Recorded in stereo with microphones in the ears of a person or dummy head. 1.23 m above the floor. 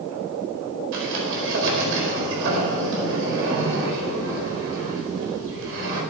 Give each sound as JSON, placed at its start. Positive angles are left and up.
{"t": 0.9, "sound": "a sliding door", "side_deg": -65, "distance_m": 4.5}